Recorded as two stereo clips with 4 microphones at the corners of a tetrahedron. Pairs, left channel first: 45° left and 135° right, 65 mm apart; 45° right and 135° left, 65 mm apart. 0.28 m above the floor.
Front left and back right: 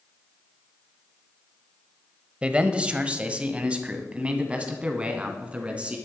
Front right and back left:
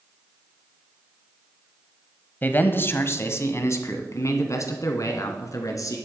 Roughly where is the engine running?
No engine running in this recording.